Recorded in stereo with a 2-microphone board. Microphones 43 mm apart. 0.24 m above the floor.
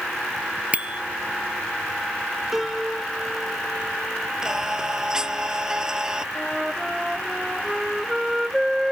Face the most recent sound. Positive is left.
turn(degrees=-5)  # may be behind; listen again after turning